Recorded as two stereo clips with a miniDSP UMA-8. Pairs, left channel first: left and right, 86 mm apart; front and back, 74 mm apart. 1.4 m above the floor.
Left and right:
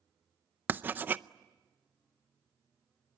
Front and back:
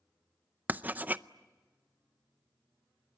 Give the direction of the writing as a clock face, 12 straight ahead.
5 o'clock.